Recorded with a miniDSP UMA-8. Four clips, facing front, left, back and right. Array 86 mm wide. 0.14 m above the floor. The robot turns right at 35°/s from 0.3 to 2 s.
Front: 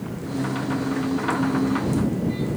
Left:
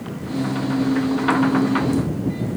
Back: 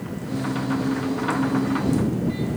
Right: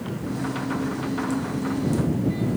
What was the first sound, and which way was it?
Only background noise.